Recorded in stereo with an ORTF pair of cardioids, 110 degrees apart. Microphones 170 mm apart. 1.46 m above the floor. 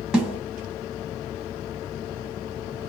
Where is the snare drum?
5° right, 1.1 m.